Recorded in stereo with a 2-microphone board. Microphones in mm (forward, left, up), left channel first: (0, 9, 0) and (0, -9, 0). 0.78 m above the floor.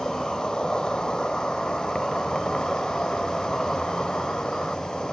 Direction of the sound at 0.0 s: 55° left (ahead or behind).